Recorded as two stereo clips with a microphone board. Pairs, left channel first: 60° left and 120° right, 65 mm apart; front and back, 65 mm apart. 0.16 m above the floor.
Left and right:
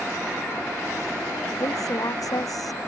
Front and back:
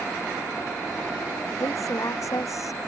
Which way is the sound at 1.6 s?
35° left.